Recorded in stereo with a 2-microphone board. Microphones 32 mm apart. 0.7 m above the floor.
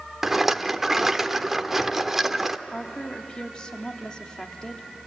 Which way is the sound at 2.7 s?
25° left (ahead or behind).